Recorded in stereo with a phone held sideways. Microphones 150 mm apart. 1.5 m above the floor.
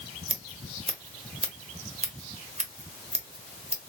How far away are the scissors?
About 1.2 m.